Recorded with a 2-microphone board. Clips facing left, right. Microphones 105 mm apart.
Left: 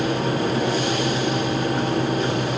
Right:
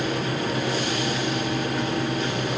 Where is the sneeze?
No sneeze in this recording.